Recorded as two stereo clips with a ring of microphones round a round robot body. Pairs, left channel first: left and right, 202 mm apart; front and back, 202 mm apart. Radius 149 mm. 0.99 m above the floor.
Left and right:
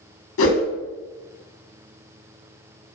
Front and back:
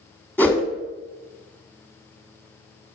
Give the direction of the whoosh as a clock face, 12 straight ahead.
9 o'clock.